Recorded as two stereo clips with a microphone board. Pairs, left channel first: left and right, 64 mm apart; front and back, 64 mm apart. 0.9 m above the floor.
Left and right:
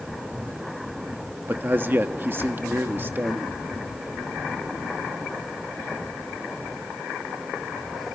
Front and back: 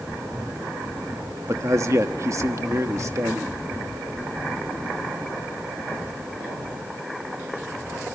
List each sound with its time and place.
1.5 s a man speaking: 145° right, 1.2 m